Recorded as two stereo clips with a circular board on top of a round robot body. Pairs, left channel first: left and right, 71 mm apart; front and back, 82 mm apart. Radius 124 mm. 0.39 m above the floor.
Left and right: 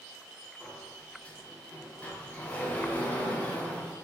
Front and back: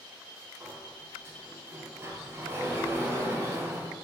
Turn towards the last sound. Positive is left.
turn(degrees=145)